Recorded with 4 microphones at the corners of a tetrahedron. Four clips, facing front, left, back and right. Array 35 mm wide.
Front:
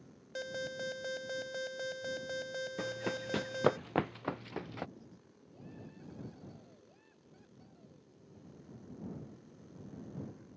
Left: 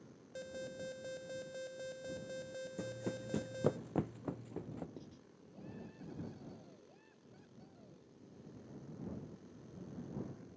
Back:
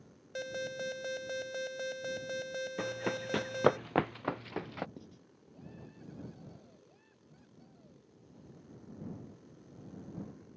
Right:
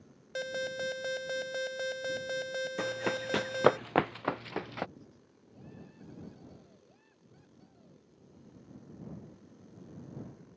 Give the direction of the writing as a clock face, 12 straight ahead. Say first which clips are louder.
Left 2 dB, back 3 dB; 7 o'clock.